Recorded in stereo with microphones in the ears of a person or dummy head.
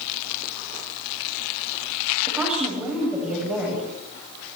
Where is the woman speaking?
10° right (ahead or behind), 8 m.